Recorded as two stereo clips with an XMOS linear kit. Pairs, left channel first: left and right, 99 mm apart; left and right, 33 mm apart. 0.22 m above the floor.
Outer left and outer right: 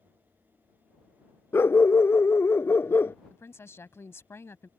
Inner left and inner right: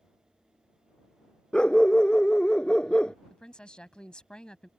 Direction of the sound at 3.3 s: 25° left (ahead or behind).